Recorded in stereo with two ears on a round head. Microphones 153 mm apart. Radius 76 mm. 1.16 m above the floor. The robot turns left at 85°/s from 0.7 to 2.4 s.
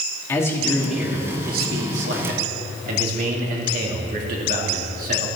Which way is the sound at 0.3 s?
15° left.